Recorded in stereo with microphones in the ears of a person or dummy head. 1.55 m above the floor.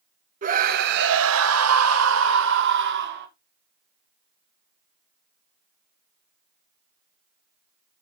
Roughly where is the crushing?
I don't hear crushing.